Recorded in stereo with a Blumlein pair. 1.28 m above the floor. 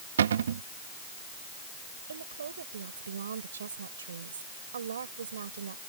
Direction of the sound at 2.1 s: 70° right.